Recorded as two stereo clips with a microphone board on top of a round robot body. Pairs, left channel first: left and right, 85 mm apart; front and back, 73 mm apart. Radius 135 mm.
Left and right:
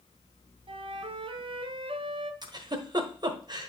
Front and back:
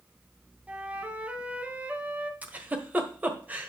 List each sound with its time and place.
0.7 s a flute: 110° right, 0.8 m
2.4 s a giggle: 115° right, 1.5 m